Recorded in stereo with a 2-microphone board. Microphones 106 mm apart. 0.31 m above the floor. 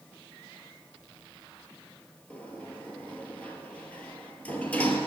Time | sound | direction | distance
2.3 | a sliding door | 15° left (ahead or behind) | 1.5 m